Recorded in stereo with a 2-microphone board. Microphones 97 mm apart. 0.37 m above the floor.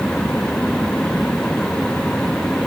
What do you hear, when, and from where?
Only background noise.